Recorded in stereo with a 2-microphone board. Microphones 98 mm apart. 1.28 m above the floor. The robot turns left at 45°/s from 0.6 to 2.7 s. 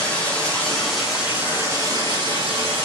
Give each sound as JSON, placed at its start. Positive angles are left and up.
{"t": 0.0, "sound": "running water", "azimuth_deg": 15, "distance_m": 1.0}